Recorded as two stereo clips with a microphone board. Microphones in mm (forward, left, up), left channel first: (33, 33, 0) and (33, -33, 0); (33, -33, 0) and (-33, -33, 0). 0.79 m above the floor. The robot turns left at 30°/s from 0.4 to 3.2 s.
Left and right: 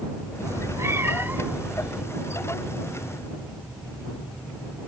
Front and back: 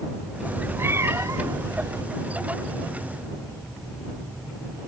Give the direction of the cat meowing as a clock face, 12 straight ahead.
4 o'clock.